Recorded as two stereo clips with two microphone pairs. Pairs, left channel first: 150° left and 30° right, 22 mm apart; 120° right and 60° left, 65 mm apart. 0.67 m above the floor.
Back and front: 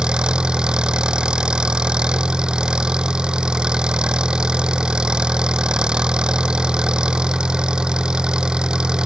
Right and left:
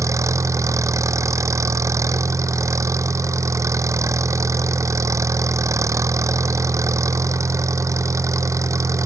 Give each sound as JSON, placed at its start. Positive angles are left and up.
{"t": 0.0, "sound": "an engine running", "azimuth_deg": 20}